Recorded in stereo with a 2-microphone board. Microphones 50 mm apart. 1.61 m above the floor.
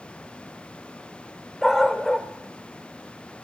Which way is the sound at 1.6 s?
5° left (ahead or behind).